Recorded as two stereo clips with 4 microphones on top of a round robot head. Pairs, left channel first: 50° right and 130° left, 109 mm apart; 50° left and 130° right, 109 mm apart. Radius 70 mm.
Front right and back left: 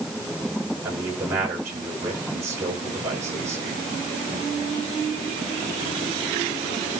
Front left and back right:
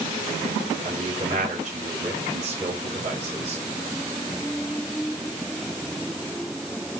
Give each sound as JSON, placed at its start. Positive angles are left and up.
{"t": 0.8, "sound": "a man speaking", "azimuth_deg": -160, "distance_m": 7.5}